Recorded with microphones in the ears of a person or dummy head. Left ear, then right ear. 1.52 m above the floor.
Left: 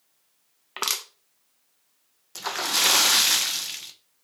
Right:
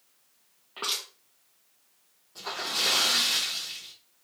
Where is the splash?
65° left (ahead or behind), 0.5 m.